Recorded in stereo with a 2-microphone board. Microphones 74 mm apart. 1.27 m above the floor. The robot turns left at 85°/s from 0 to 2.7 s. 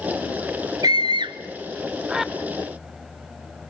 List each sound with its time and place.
0.8 s a scream: 55° right (ahead or behind), 0.7 m; by 2.3 s 5° left (ahead or behind), 0.7 m